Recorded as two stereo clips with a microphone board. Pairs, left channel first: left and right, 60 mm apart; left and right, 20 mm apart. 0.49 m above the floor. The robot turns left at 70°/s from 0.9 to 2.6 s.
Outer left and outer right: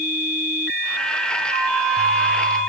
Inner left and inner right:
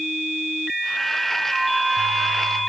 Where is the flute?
95° right, 5.5 m; by 2.6 s 170° right, 5.5 m.